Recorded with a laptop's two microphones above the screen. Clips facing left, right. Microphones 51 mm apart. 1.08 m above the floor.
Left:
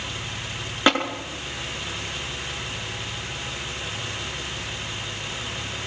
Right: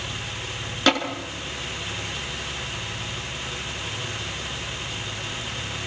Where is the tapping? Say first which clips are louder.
Left 1 dB; 20° left (ahead or behind), 7.5 m.